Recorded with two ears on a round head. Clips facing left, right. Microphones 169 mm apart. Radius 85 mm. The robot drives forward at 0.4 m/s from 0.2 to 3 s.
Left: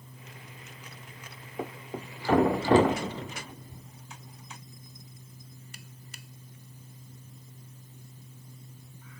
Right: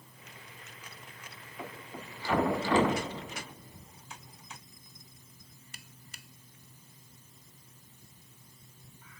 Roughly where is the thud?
Left.